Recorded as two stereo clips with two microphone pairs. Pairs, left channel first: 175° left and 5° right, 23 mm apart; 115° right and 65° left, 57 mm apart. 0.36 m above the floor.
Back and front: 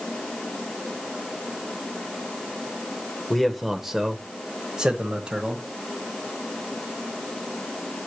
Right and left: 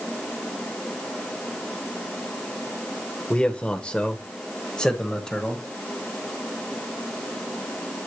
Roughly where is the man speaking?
Right.